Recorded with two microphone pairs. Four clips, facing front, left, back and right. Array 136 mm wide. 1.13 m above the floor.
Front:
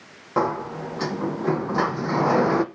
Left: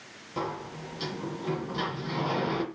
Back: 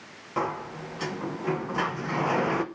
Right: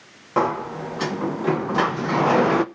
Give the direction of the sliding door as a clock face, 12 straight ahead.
2 o'clock.